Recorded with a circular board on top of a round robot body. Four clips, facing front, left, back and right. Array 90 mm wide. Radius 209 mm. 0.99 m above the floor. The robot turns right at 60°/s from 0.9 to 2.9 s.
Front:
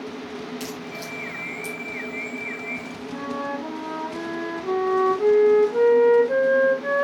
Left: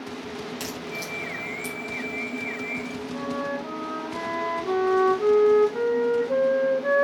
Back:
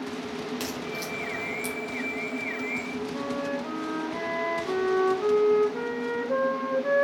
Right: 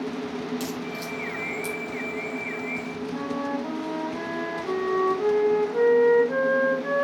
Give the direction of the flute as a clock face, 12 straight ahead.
12 o'clock.